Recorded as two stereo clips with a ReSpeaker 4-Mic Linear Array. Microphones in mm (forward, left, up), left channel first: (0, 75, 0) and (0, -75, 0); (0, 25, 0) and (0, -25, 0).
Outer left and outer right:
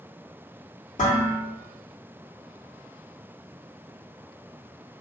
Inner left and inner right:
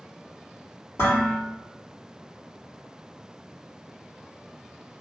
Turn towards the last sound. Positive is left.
turn(degrees=60)  # may be behind; listen again after turning